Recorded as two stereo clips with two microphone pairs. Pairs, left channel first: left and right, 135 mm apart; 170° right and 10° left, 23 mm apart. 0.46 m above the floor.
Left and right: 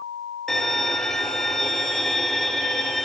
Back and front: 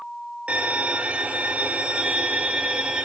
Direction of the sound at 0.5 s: Straight ahead.